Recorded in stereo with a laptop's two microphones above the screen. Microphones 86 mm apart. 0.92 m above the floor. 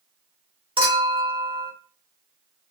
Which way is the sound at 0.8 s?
80° right.